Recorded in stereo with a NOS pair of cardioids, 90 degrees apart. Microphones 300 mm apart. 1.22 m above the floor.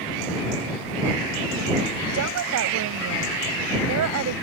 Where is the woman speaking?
70° right.